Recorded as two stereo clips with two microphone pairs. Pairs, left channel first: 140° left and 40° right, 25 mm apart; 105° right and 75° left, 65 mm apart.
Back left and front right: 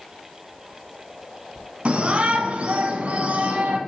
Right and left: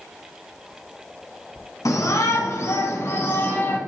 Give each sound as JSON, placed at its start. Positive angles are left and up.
{"t": 1.9, "sound": "a shout", "azimuth_deg": -80, "distance_m": 2.5}